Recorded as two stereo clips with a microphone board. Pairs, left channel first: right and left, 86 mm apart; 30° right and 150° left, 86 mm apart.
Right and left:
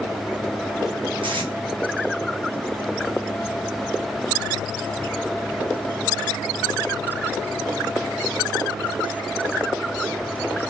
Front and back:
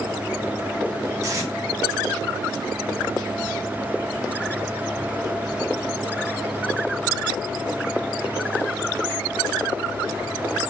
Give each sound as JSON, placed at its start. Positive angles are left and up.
{"t": 1.2, "sound": "tape being pulled", "azimuth_deg": 95, "distance_m": 1.4}